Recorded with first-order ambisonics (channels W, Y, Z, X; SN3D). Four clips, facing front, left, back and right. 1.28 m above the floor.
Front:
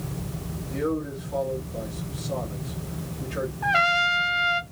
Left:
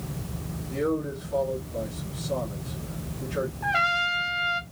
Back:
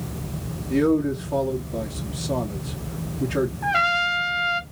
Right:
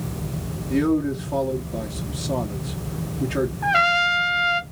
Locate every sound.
0.7 s a man speaking: 135° right, 2 m
3.6 s a trumpet: 85° right, 0.5 m